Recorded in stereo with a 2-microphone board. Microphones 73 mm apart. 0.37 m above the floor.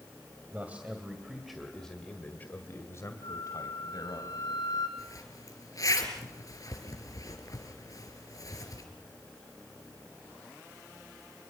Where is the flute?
75° left (ahead or behind), 5 m.